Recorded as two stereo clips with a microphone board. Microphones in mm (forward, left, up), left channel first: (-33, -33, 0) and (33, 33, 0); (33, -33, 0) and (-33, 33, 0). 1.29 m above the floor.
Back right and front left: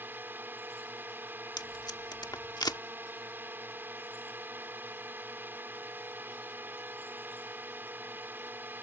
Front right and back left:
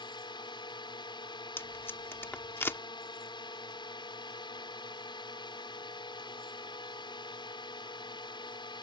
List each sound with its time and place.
0.0 s a drone: 20° right
1.6 s tape being pulled: 105° right